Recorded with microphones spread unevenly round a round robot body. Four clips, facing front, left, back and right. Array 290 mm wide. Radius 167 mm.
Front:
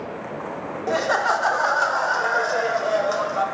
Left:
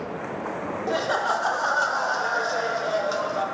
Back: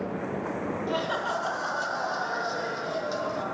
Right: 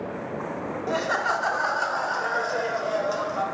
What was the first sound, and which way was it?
Laughter, 15° left.